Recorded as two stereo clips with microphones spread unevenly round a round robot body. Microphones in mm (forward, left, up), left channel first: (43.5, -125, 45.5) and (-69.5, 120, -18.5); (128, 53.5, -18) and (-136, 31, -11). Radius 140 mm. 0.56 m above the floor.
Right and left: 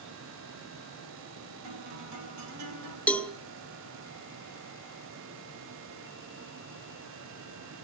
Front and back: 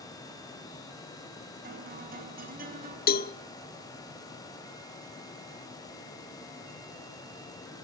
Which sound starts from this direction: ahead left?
A cowbell, at 3.1 s.